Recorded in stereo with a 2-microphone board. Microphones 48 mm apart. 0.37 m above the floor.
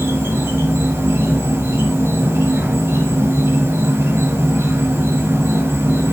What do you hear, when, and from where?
0.0 s an insect: 60° right (ahead or behind), 1.8 m